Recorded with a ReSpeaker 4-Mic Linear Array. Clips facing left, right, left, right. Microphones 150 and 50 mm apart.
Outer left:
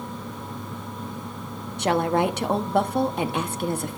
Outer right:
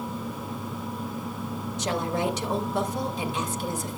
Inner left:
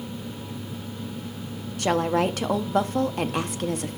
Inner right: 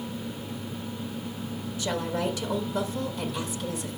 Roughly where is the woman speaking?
Left.